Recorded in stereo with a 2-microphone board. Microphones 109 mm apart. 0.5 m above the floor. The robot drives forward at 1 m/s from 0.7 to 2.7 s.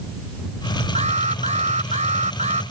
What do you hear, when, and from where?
0.9 s an alarm: 75° right (ahead or behind); by 2.6 s 80° right